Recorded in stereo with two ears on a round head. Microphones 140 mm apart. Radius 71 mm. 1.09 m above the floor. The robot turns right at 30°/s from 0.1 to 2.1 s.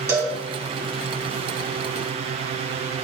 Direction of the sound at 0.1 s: 20° right (ahead or behind).